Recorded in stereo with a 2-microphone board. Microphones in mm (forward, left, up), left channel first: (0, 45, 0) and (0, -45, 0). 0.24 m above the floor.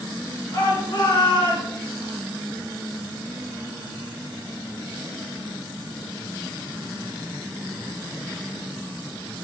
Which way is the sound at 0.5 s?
55° left (ahead or behind).